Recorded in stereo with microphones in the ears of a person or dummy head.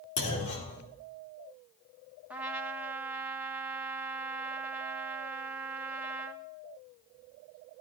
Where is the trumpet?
10° right (ahead or behind), 1.4 m.